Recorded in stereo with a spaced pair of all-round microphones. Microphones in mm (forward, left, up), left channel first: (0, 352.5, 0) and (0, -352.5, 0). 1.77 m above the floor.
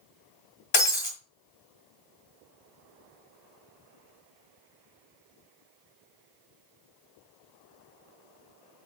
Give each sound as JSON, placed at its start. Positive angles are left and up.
{"t": 0.7, "sound": "breaking glass", "side_deg": 45, "distance_m": 2.0}